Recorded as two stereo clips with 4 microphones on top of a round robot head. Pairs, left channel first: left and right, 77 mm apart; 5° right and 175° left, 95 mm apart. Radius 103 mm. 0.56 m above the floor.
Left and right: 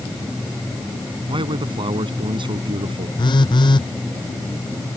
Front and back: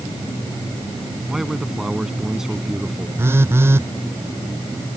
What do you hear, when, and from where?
1.3 s a man speaking: 100° right
3.2 s a phone buzzing: 110° left